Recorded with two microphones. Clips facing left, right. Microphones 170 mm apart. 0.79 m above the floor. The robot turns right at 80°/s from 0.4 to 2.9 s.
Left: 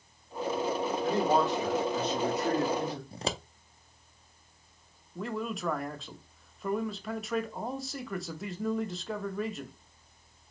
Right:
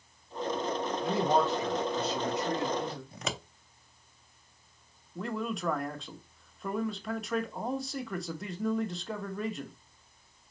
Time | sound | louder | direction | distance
1.0 | a man speaking | even | 20° right | 1.5 m
3.1 | scissors | left 3 dB | 30° left (ahead or behind) | 0.5 m
5.2 | a man speaking | even | centre (ahead or behind) | 0.7 m